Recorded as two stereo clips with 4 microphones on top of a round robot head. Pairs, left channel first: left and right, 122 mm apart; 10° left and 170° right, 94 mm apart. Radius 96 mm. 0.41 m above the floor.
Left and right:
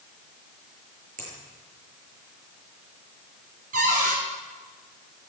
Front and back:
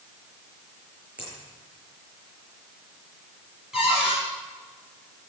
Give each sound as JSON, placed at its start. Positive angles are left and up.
{"t": 1.2, "sound": "a finger snap", "azimuth_deg": -90, "distance_m": 8.0}
{"t": 3.7, "sound": "a cupboard door", "azimuth_deg": -85, "distance_m": 6.0}